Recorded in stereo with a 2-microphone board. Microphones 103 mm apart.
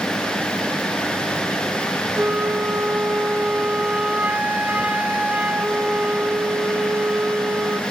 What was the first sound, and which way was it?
A flute, 15° right (ahead or behind).